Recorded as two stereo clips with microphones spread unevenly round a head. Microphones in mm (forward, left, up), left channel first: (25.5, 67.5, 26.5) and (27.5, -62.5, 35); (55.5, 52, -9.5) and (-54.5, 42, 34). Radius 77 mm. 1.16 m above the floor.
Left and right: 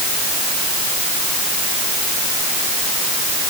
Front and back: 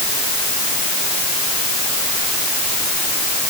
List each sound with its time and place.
Only background noise.